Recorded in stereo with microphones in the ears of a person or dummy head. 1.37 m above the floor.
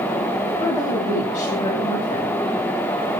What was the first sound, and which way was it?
A woman speaking, 15° left (ahead or behind).